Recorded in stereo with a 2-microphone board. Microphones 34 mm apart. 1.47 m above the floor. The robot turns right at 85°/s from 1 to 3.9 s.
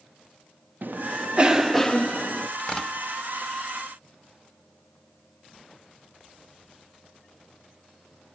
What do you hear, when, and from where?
0.8 s a cough: 60° right, 0.6 m; by 2.5 s 65° left, 0.6 m
2.6 s tearing paper: 35° left (ahead or behind), 1.0 m; by 2.9 s 15° left (ahead or behind), 1.0 m